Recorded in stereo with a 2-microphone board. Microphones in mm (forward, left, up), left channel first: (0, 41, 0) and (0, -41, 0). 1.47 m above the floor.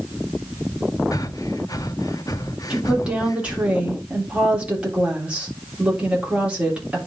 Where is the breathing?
45° left (ahead or behind), 0.6 m.